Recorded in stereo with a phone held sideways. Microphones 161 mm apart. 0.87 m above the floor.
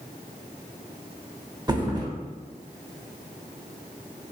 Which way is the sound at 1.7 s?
25° right (ahead or behind).